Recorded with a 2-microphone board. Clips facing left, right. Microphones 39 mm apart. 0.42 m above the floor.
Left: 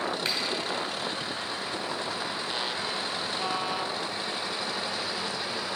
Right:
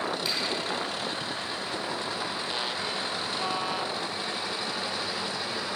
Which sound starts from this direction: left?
A finger snap, at 0.2 s.